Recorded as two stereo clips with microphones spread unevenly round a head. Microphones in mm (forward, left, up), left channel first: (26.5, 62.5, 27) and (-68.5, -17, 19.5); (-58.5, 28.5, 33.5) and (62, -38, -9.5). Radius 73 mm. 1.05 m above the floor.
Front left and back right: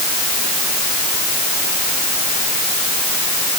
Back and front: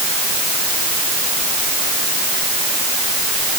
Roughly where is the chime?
No chime in this recording.